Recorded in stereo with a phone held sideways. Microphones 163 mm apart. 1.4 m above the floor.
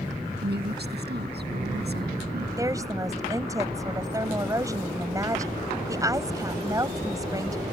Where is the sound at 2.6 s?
20° right (ahead or behind).